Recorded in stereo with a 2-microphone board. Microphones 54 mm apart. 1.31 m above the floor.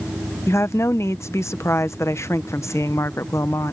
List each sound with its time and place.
0.5 s a woman speaking: 65° left (ahead or behind)